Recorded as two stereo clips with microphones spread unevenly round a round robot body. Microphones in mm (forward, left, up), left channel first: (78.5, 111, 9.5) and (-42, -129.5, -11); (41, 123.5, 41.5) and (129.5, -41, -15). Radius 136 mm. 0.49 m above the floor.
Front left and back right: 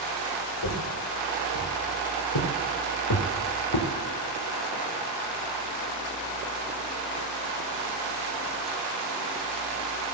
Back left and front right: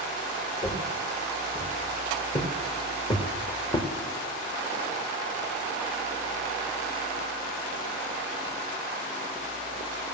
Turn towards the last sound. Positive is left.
turn(degrees=50)